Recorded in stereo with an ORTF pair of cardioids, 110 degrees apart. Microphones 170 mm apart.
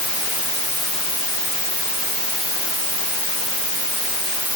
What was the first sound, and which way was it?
Only background noise.